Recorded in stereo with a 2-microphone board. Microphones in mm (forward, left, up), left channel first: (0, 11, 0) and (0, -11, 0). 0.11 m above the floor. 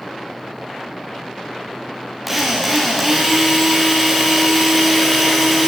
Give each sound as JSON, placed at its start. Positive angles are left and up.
{"t": 2.3, "sound": "a drill", "side_deg": -5, "distance_m": 8.5}